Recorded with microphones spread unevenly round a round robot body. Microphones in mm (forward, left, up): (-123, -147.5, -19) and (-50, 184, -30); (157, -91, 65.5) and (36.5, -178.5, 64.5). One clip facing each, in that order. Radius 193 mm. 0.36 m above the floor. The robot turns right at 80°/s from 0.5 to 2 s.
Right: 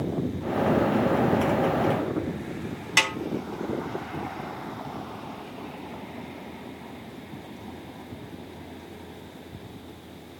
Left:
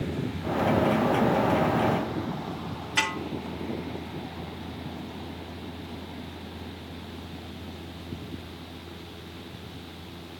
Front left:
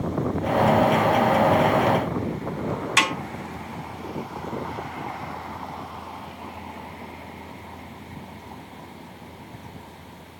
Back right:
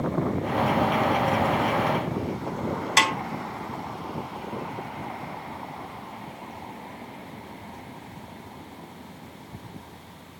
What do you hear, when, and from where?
3.0 s a snare drum: 100° right, 2 m